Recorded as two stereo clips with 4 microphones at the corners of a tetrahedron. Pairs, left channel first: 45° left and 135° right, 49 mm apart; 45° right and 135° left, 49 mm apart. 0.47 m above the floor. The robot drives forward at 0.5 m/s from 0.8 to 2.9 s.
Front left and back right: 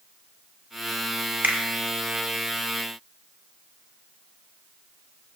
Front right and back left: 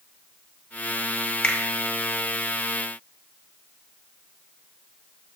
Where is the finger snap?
100° right, 0.7 m; by 1.6 s 105° right, 0.8 m.